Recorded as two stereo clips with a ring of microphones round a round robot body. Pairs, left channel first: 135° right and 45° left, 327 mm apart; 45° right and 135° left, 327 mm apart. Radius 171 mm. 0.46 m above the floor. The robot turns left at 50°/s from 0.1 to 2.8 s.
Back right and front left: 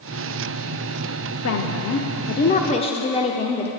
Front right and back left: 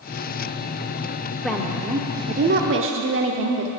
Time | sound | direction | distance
1.4 | a woman speaking | 130° right | 0.9 m